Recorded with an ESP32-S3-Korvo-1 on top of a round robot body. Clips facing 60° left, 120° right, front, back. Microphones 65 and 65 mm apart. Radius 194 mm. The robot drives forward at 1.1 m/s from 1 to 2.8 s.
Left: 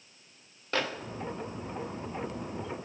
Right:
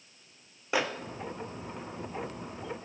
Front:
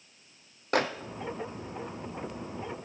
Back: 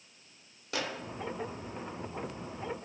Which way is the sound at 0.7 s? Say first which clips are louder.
Right 2 dB, front 9 dB; 45° right.